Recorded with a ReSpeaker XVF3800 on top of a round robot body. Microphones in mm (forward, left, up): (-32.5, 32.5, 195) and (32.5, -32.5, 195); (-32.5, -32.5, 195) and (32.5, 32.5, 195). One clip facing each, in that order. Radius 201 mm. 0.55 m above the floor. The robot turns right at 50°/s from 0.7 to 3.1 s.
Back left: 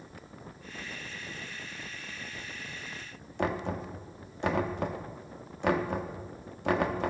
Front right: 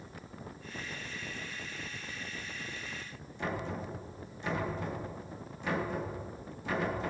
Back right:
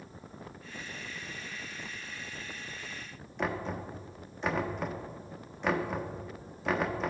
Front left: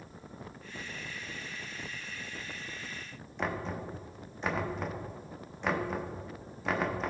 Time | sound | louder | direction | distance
3.4 | knocking | back left 5 dB, back right 1 dB | 135° left | 1.2 m